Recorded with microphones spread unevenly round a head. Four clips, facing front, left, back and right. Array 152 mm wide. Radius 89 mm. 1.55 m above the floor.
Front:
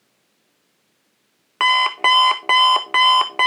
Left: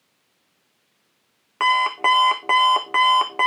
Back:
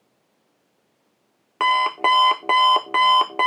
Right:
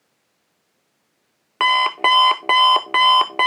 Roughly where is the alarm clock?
Behind right.